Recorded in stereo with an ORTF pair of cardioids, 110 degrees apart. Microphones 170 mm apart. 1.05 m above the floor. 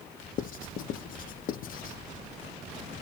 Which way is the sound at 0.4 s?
55° left.